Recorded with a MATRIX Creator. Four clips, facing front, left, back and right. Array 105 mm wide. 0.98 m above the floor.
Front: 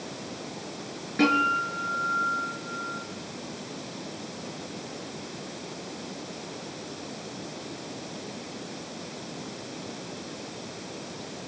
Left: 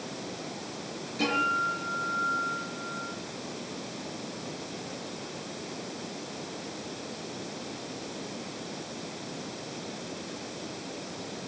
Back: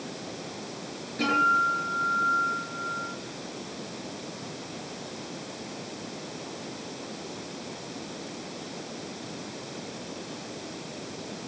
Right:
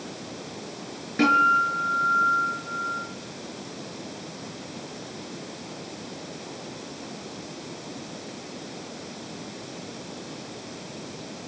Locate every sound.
1.2 s a guitar: 50° right, 6.5 m